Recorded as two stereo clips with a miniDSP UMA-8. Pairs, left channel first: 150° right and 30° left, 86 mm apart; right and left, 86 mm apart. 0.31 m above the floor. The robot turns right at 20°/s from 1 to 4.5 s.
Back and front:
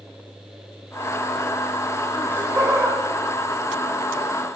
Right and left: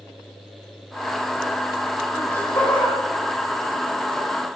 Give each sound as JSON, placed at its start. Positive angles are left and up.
{"t": 2.1, "sound": "laughter", "azimuth_deg": -30, "distance_m": 1.8}